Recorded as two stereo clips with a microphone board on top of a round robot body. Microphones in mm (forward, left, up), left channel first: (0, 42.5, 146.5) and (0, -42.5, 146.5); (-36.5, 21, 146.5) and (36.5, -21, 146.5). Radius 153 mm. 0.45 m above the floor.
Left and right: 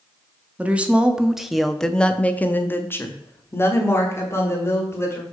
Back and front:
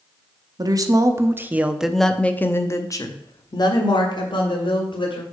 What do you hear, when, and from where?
0.6 s a woman speaking: 20° right, 1.2 m; by 5.2 s 145° left, 2 m